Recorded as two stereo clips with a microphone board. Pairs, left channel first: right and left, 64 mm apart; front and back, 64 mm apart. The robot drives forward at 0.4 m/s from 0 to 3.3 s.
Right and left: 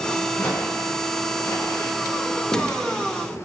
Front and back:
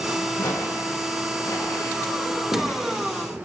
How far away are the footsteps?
About 6.5 m.